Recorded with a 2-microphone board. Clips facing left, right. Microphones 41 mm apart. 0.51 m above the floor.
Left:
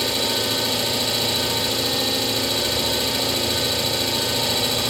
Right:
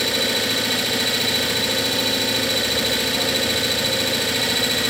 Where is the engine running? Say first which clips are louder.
Right 2 dB; 85° right, 5 m.